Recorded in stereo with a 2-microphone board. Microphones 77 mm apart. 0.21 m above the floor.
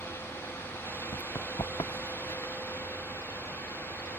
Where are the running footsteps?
60° left (ahead or behind); by 2.5 s 55° left (ahead or behind).